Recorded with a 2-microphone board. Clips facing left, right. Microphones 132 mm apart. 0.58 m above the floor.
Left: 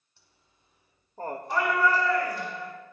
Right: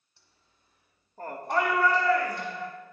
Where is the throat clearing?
I don't hear throat clearing.